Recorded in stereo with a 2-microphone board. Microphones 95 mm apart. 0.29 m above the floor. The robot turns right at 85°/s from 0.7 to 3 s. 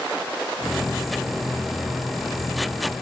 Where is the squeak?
I don't hear a squeak.